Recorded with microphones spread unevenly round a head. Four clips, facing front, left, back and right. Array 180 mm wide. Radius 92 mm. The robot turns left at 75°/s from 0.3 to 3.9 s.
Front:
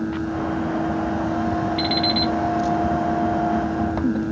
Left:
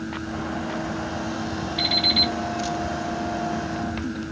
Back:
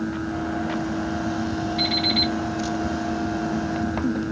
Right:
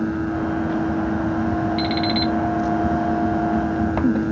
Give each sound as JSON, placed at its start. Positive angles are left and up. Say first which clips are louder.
{"t": 1.8, "sound": "an alarm clock", "louder": "right 6 dB, front 3 dB", "azimuth_deg": -5, "distance_m": 2.0}